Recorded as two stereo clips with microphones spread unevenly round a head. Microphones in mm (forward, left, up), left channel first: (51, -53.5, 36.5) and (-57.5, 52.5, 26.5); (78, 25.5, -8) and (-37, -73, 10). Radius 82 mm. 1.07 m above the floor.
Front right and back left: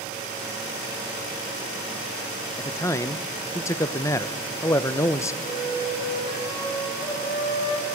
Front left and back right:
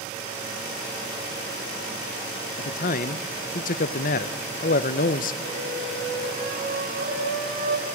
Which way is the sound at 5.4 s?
110° right.